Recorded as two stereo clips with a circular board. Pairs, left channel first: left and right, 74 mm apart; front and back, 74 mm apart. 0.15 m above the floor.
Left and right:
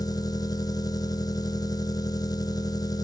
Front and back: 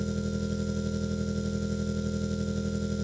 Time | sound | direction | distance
0.0 | an engine running | 95° left | 0.8 m